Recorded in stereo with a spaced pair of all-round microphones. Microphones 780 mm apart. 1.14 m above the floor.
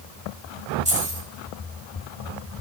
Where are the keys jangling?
10° right (ahead or behind), 1.1 m.